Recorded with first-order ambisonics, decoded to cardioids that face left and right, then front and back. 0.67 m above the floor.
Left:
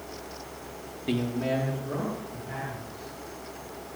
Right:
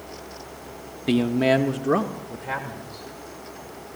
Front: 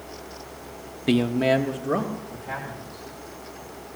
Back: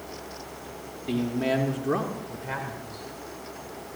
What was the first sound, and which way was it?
A man speaking, 30° right.